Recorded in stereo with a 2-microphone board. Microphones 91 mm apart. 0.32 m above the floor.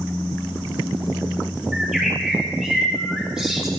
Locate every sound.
1.7 s a bird: 5° right (ahead or behind), 4 m